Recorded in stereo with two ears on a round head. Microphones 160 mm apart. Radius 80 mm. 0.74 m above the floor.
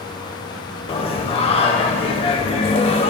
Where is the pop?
I don't hear a pop.